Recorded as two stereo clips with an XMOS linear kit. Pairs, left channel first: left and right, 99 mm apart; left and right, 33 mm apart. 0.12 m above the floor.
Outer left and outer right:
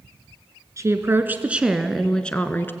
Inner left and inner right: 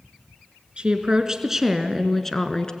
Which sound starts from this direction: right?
A woman speaking, at 0.8 s.